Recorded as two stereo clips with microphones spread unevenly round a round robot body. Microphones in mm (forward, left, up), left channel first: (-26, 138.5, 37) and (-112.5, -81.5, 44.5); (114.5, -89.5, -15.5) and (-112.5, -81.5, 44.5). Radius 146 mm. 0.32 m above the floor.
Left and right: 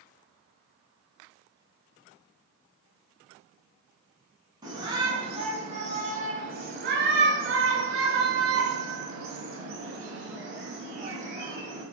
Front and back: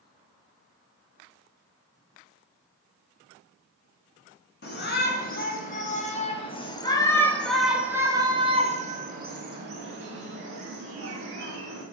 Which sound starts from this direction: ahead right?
A shout, at 4.6 s.